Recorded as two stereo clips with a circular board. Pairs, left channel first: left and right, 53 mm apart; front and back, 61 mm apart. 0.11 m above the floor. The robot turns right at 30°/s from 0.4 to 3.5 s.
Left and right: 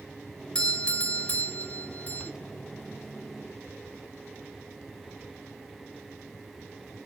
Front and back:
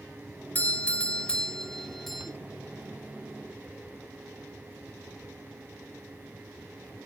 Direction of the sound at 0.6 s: 35° left.